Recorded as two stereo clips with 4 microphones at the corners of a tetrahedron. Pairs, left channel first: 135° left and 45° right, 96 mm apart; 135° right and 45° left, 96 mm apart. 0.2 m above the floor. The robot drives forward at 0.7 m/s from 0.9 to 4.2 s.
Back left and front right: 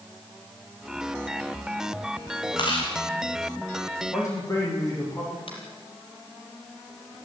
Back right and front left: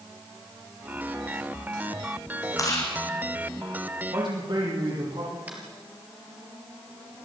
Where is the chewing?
170° left, 5.5 m.